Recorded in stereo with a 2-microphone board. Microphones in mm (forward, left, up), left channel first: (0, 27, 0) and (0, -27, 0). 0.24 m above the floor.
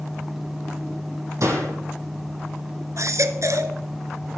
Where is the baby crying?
65° right (ahead or behind), 1.4 m.